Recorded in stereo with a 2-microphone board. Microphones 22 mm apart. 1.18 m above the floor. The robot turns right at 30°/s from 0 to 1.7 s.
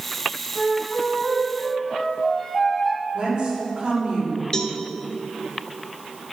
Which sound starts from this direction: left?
A cowbell, at 4.5 s.